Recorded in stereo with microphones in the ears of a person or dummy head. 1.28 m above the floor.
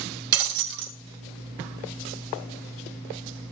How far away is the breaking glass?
About 1.8 m.